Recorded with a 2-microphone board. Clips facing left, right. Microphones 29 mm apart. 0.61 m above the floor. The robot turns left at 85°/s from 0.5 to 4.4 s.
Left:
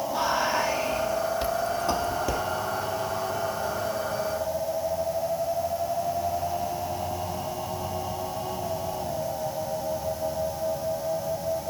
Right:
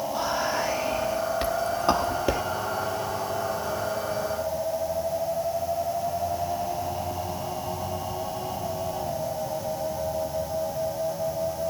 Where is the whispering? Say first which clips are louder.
Left 3 dB; 5° left (ahead or behind), 1.1 m; by 2.4 s 15° right (ahead or behind), 1.1 m.